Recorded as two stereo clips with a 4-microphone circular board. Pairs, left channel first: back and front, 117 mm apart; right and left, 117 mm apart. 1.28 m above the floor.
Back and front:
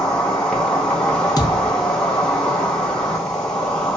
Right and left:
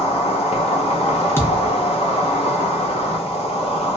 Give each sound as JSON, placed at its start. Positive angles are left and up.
{"t": 0.0, "sound": "an insect", "azimuth_deg": -95, "distance_m": 0.8}
{"t": 1.4, "sound": "a thud", "azimuth_deg": -150, "distance_m": 0.7}